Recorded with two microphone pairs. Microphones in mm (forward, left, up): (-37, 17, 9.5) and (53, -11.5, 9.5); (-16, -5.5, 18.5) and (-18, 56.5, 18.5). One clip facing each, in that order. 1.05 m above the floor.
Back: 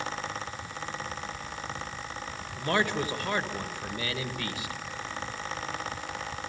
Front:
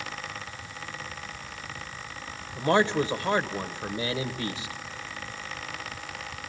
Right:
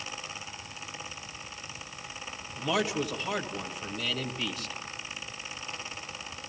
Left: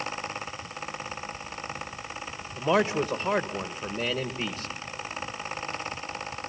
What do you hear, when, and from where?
2.5 s a man speaking: 40° left, 1.4 m